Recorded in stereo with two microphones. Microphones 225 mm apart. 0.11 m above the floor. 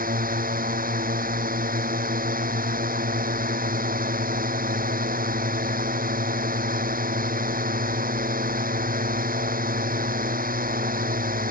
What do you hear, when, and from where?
0.0 s a drone: 40° right (ahead or behind)